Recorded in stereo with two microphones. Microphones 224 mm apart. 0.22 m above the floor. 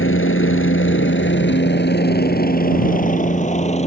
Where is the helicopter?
70° left (ahead or behind); by 3.9 s 30° left (ahead or behind).